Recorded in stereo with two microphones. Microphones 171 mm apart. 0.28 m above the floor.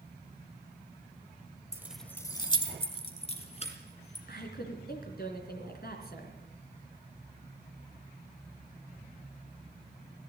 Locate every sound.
1.7 s keys jangling: 15° right (ahead or behind), 0.6 m; by 4.2 s 40° left (ahead or behind), 2.5 m
4.3 s a woman speaking: 65° left (ahead or behind), 3 m